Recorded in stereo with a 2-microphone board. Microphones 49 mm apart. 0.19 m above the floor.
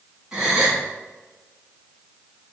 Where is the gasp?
10° right (ahead or behind), 1.6 m.